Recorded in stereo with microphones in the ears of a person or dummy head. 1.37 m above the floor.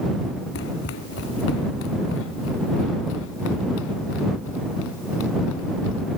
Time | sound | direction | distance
0.6 | running footsteps | 65° left (ahead or behind) | ?